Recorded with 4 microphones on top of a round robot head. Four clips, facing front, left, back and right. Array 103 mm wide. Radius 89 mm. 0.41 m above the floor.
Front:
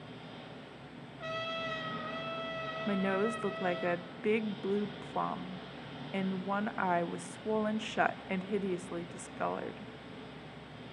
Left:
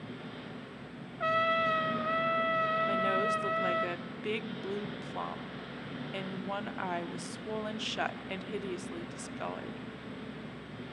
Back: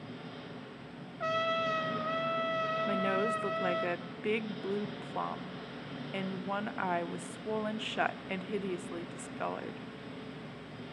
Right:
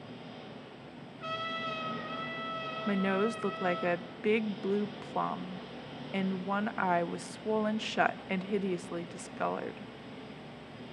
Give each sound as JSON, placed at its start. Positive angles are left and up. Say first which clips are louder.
{"t": 0.0, "sound": "an engine running", "louder": "left 2 dB, back 3 dB", "azimuth_deg": 120, "distance_m": 3.5}
{"t": 1.2, "sound": "a trumpet", "louder": "left 9 dB, back 7 dB", "azimuth_deg": 120, "distance_m": 1.6}
{"t": 2.9, "sound": "a woman speaking", "louder": "left 1 dB, front 3 dB", "azimuth_deg": -80, "distance_m": 0.9}